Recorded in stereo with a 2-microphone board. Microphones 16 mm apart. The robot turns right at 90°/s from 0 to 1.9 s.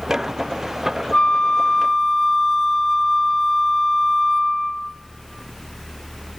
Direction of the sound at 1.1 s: 95° left.